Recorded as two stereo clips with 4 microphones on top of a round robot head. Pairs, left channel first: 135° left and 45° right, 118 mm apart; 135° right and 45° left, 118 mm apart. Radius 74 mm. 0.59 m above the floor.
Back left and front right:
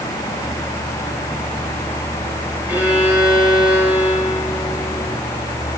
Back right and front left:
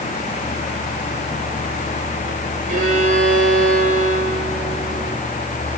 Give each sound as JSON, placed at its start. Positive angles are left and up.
{"t": 2.7, "sound": "a violin", "azimuth_deg": 35, "distance_m": 8.0}